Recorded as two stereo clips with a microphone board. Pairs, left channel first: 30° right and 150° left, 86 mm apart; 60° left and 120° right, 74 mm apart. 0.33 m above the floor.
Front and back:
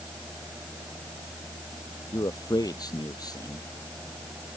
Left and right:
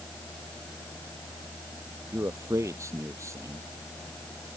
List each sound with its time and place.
2.1 s a man speaking: 70° right